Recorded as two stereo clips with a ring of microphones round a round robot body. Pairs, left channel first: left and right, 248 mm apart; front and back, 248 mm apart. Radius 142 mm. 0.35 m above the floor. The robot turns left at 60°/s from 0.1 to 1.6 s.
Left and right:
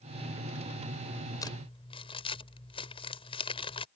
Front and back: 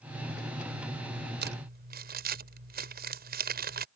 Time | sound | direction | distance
1.4 | crumpling | 160° left | ?